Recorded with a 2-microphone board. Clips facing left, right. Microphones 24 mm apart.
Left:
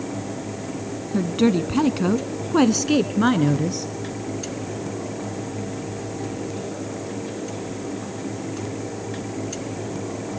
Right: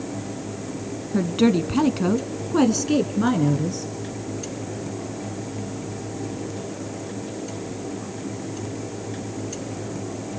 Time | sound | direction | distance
1.1 | a woman speaking | 10° right (ahead or behind) | 1.2 m